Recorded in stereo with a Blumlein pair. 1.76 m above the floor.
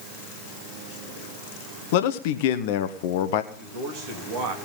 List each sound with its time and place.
1.9 s a man speaking: 50° left, 1.1 m
3.5 s a man speaking: 40° right, 3.5 m